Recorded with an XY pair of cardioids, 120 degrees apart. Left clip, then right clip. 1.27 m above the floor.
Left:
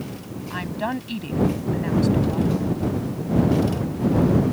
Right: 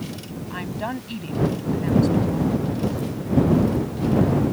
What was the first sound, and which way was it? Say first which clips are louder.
A woman speaking: left 2 dB; 15° left.